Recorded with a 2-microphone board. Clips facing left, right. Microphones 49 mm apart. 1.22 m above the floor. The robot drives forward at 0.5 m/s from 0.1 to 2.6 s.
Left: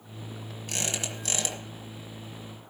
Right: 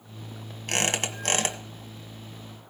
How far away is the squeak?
About 1.6 m.